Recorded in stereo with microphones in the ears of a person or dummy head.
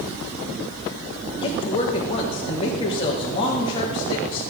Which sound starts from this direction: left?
A woman speaking, at 1.4 s.